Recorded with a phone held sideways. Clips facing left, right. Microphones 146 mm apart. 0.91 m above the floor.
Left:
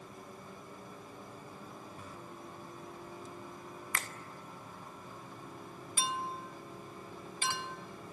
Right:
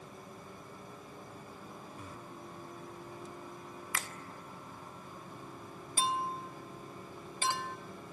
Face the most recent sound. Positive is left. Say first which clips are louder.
# right 4 dB
turn(degrees=-40)  # may be behind; listen again after turning